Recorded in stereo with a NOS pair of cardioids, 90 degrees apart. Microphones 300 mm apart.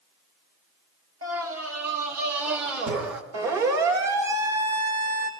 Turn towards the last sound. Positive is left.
turn(degrees=-60)